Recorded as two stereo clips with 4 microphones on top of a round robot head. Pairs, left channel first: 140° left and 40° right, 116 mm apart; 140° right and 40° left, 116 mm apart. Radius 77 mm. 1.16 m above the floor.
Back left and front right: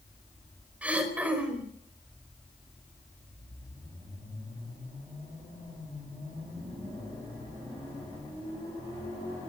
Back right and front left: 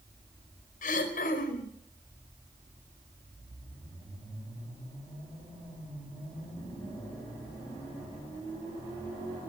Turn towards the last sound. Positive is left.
turn(degrees=-120)